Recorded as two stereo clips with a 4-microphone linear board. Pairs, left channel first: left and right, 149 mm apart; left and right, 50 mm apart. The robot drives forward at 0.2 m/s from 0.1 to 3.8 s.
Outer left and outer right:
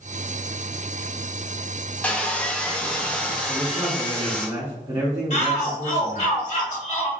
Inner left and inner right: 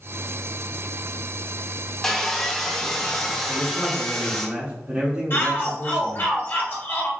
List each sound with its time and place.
2.0 s sawing: 10° left (ahead or behind), 0.7 m; by 4.5 s 5° left (ahead or behind), 0.9 m
3.5 s a man speaking: 40° right (ahead or behind), 1.4 m
5.3 s a shout: 55° left (ahead or behind), 1.5 m